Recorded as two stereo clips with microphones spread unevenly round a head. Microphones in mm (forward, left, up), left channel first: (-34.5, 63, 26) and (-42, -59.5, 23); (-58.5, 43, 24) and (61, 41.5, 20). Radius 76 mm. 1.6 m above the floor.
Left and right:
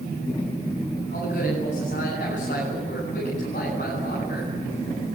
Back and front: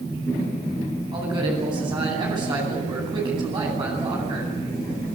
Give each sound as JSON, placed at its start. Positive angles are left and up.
{"t": 1.1, "sound": "a man speaking", "azimuth_deg": 45, "distance_m": 10.0}